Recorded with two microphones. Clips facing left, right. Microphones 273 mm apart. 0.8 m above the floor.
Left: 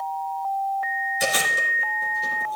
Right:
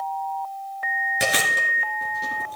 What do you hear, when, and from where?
1.2 s chewing: 75° right (ahead or behind), 2.5 m